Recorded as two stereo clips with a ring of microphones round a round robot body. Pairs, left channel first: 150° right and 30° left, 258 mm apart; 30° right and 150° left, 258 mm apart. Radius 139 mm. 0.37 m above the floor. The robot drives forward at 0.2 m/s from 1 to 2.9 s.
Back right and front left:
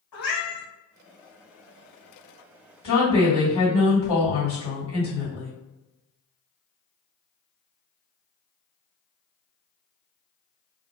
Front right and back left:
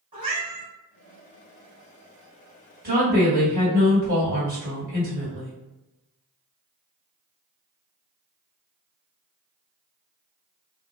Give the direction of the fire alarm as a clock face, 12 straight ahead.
No fire alarm in this recording.